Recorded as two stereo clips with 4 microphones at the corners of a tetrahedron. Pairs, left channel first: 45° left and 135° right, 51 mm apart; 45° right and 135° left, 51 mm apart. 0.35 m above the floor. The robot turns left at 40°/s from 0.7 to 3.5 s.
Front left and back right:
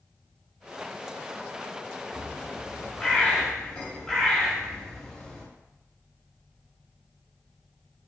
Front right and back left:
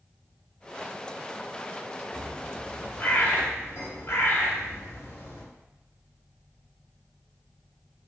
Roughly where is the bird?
Ahead.